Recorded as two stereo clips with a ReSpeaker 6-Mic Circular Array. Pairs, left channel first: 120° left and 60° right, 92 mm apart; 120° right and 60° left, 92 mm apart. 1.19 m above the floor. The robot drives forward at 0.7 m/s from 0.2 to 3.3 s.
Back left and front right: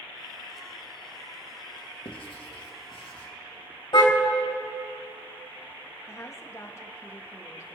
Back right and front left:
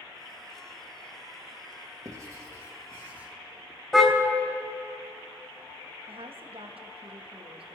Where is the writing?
105° left, 1.6 m; by 3.3 s 130° left, 1.9 m.